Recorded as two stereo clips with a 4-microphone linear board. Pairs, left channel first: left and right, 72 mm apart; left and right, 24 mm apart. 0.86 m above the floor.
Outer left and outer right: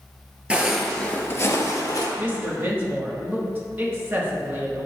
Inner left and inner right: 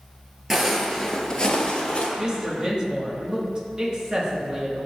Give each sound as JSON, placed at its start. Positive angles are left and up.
{"t": 0.5, "sound": "footsteps", "side_deg": -15, "distance_m": 1.1}
{"t": 2.2, "sound": "a woman speaking", "side_deg": -30, "distance_m": 1.6}